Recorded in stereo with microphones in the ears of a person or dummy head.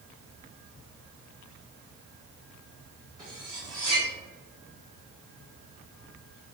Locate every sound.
3.2 s cutlery clinking: 35° right (ahead or behind), 1.1 m